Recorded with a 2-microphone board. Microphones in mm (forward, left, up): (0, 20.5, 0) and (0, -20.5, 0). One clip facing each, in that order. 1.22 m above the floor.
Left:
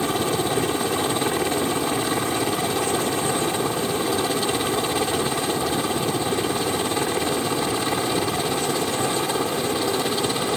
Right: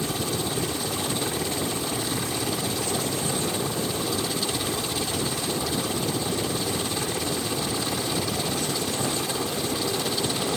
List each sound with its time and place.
0.0 s a helicopter: 40° left (ahead or behind); by 10.6 s 30° left (ahead or behind)